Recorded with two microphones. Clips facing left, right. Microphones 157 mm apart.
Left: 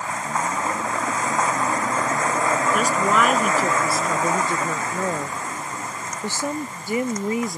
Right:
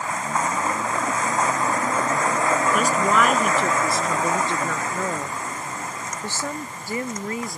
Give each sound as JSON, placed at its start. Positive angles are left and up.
{"t": 2.7, "sound": "a woman speaking", "side_deg": 0}